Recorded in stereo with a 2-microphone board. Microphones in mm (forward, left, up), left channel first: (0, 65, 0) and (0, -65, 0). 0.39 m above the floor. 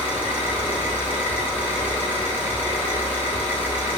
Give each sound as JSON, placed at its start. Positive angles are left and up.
{"t": 0.0, "sound": "an engine running", "side_deg": -15, "distance_m": 1.4}